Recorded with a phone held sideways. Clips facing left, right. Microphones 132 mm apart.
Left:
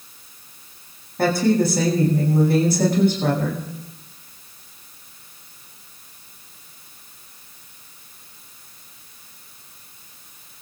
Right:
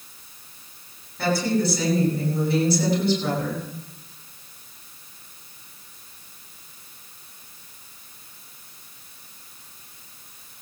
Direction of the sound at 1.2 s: 50° left (ahead or behind).